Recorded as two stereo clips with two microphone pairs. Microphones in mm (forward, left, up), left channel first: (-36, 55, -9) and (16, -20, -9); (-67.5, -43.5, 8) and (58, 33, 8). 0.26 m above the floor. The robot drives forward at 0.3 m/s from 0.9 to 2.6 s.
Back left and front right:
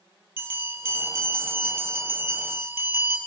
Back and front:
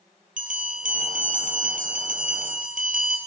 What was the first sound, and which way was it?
A bell, 10° left.